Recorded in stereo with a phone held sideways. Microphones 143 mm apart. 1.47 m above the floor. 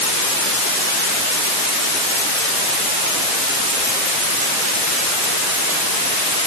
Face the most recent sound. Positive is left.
No sound to turn to.